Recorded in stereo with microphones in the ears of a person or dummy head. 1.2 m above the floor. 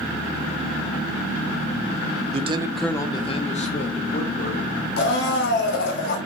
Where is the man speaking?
40° right (ahead or behind), 0.5 m; by 4.8 s 45° left (ahead or behind), 2.0 m.